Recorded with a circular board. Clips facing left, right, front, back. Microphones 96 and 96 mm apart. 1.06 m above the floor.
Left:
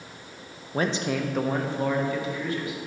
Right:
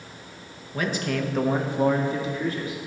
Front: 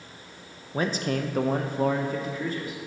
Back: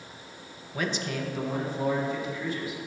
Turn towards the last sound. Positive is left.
turn(degrees=-40)